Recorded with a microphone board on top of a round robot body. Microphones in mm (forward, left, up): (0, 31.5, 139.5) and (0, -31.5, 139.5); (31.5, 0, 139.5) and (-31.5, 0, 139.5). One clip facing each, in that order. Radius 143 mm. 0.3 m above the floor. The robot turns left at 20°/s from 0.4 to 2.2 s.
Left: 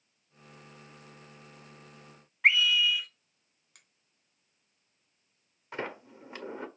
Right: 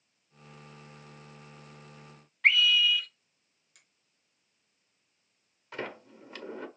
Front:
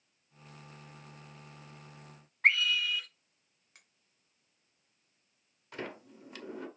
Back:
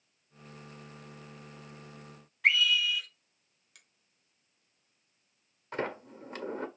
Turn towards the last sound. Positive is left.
turn(degrees=150)